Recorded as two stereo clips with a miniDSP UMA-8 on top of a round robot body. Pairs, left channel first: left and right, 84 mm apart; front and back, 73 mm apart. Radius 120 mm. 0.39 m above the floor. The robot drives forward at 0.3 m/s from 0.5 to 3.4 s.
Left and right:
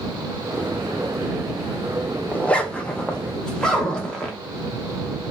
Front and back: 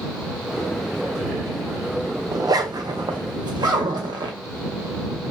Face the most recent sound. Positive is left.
turn(degrees=170)